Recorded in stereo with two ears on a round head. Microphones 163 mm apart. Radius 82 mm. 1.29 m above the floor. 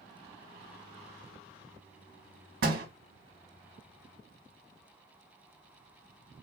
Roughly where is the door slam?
Right.